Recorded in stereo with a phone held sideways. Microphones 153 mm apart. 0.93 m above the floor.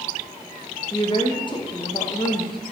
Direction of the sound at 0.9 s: 30° left (ahead or behind).